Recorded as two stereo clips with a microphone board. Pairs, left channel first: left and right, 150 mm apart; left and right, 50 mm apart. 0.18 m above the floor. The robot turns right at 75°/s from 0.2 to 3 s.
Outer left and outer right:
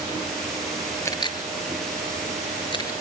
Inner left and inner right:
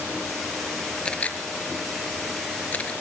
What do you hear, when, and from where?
1.1 s a camera shutter: 20° left (ahead or behind), 4 m